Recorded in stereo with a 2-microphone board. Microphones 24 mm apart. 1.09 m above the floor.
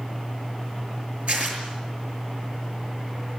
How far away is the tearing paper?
About 6 m.